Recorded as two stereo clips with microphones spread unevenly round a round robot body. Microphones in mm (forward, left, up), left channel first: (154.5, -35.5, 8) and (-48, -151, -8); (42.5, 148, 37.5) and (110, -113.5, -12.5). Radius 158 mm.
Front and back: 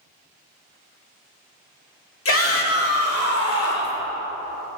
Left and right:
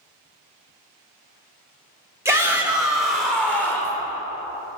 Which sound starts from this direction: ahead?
A shout, at 2.2 s.